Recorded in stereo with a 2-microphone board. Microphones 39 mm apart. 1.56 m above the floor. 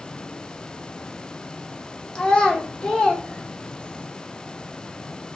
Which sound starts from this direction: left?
A child speaking, at 2.1 s.